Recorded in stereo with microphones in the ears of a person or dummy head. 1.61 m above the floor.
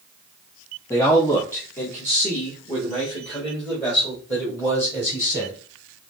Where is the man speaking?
15° left (ahead or behind), 0.8 m; by 5.6 s 10° left (ahead or behind), 3.5 m.